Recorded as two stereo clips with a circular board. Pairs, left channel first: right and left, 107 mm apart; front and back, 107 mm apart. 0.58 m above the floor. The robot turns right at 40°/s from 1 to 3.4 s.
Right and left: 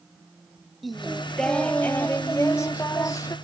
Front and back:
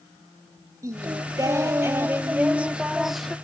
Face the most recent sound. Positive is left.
turn(degrees=-85)